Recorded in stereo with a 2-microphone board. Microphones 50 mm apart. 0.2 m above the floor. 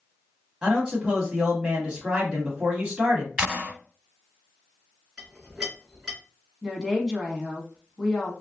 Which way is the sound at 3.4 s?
20° right (ahead or behind).